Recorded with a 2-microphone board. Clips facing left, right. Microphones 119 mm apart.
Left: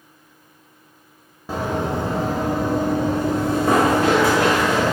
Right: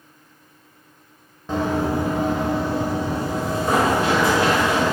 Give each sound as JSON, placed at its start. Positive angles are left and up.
{"t": 1.5, "sound": "running footsteps", "side_deg": 5, "distance_m": 0.8}